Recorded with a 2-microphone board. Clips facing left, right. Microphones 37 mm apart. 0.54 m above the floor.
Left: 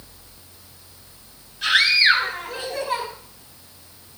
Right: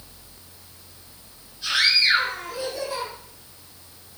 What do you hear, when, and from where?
1.6 s a scream: 65° left (ahead or behind), 8 m; by 3.1 s 60° left (ahead or behind), 8.5 m